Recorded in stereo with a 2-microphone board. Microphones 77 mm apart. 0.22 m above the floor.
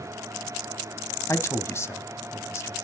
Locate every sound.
1.3 s a man speaking: 40° left (ahead or behind), 1.2 m